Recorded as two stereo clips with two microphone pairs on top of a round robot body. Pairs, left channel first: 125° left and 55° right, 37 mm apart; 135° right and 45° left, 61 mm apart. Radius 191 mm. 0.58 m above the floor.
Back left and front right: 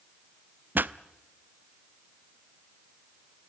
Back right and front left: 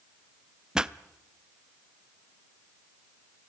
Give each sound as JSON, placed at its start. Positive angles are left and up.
{"t": 0.8, "sound": "a pop", "azimuth_deg": -40, "distance_m": 0.7}